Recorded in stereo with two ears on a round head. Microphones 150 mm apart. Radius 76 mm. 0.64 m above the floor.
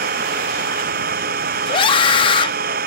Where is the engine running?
60° right (ahead or behind).